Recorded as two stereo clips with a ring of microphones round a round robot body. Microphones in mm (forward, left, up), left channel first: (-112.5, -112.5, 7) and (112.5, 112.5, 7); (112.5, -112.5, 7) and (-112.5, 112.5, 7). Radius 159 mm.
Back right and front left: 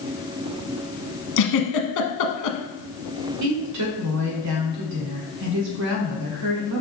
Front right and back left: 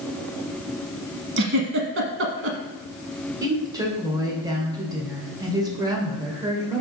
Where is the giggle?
170° right, 1.1 m.